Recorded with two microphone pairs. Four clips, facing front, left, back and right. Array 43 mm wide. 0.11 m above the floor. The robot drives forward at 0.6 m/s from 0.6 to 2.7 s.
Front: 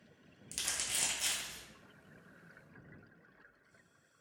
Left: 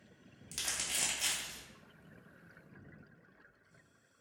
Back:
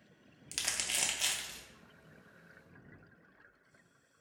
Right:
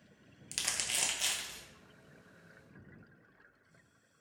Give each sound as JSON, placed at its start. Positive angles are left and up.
{"t": 0.5, "sound": "crumpling", "azimuth_deg": -135, "distance_m": 0.5}